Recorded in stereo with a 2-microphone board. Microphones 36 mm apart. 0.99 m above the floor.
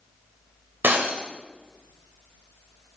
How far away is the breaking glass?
About 2 m.